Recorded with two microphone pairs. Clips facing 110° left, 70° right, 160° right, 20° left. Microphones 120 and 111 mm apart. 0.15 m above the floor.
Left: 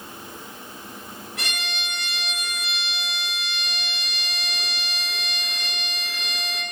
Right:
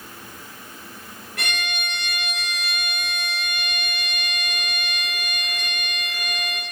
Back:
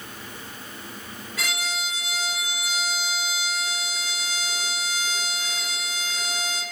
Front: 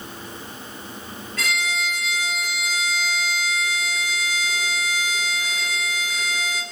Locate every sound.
1.4 s a violin: 80° right, 2 m